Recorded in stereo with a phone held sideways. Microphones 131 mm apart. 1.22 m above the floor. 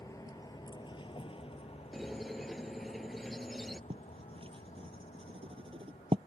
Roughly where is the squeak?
Centre.